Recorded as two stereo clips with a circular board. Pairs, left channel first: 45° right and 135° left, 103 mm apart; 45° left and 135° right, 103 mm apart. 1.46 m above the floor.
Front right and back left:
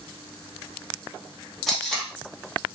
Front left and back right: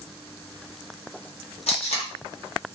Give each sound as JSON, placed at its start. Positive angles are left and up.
{"t": 1.7, "sound": "tape being pulled", "azimuth_deg": 45, "distance_m": 0.9}